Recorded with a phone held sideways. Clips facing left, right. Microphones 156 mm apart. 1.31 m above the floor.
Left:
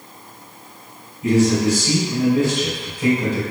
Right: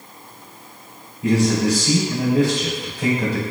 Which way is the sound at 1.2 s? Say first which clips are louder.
Left 2 dB; 40° right (ahead or behind).